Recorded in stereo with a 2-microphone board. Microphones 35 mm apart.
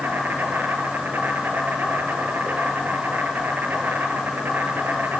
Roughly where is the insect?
Right.